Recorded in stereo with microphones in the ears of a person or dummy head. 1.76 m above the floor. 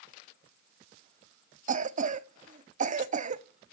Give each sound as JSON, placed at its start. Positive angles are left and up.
{"t": 1.7, "sound": "a cough", "side_deg": -40, "distance_m": 0.5}